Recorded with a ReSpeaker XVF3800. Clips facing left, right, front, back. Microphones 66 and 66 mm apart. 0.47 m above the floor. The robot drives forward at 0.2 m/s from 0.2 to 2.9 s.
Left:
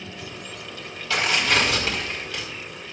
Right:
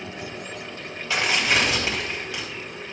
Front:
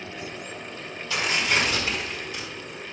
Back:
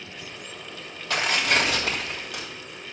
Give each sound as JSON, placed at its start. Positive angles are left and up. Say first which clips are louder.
{"t": 1.1, "sound": "tearing paper", "louder": "even, back 1 dB", "azimuth_deg": -160, "distance_m": 3.0}